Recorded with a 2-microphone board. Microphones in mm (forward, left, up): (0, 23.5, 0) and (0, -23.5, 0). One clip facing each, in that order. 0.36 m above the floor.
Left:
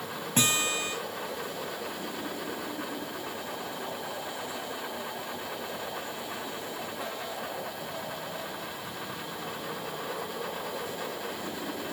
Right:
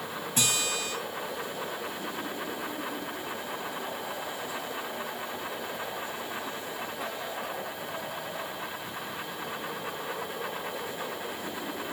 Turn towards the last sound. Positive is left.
turn(degrees=45)  # may be behind; listen again after turning